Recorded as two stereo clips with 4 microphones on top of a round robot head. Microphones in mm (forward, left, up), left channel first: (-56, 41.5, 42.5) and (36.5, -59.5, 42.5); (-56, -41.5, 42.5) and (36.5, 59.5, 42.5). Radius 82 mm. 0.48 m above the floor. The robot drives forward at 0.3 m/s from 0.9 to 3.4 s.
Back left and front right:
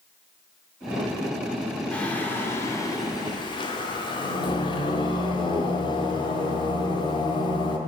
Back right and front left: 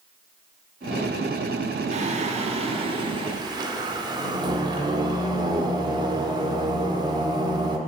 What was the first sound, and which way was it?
Singing, 50° left.